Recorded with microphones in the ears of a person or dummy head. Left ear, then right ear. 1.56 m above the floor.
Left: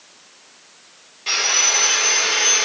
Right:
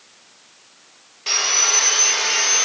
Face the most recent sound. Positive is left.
turn(degrees=-20)  # may be behind; listen again after turning